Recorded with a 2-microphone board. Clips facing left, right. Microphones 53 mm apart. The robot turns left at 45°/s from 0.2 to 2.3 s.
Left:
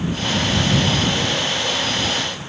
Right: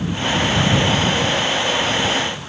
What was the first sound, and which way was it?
Only background noise.